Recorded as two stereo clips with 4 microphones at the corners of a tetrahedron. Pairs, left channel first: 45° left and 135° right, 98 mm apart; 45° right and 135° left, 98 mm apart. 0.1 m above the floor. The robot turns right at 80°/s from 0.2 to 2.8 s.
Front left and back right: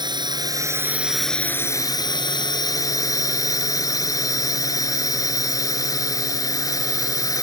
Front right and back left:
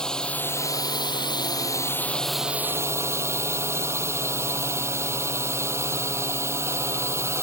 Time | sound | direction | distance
0.0 | a drone | 125° right | ?